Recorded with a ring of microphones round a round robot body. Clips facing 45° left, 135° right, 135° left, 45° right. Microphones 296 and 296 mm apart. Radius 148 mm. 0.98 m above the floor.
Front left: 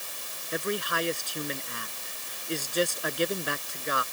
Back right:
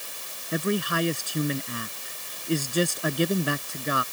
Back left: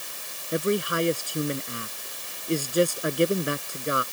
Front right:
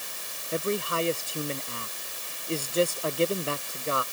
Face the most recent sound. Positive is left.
turn(degrees=-150)